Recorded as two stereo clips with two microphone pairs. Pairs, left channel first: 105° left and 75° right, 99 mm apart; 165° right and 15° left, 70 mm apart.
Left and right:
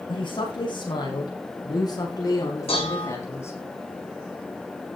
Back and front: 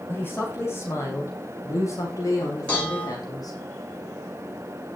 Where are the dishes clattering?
120° left, 8.5 m.